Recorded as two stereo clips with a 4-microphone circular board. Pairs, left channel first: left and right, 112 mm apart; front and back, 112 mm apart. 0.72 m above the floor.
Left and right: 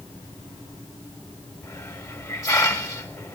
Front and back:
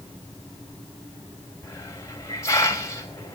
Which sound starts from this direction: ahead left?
A hiss, at 1.6 s.